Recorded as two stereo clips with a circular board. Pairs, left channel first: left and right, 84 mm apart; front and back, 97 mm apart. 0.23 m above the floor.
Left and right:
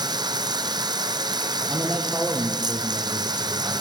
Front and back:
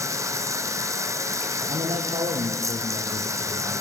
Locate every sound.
0.0 s running water: 120° right, 1.2 m
1.7 s a man speaking: 165° right, 6 m